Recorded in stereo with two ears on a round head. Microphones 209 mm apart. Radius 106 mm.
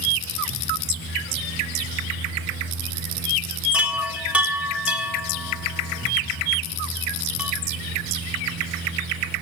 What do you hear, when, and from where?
3.7 s a chime: 5° right (ahead or behind), 1.4 m